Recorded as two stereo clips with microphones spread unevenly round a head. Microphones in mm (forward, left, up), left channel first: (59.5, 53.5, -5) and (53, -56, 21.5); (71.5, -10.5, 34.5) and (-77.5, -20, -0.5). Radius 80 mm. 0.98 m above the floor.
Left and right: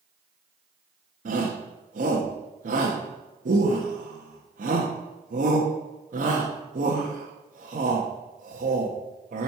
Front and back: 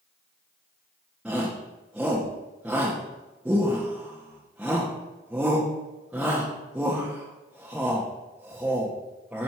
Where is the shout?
100° right, 1.5 m.